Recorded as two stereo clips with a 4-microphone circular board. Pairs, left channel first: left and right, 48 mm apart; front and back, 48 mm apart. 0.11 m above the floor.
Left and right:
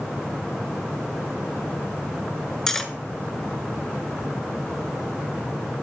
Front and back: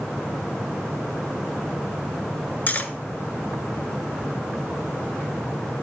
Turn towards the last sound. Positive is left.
turn(degrees=15)